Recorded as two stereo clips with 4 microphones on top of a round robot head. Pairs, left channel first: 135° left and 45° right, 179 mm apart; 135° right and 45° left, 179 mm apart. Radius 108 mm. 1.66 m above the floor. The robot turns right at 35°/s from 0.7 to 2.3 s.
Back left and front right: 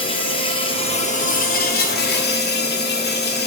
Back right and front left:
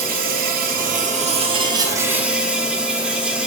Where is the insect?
75° left, 1.0 m; by 3.5 s 130° left, 1.0 m.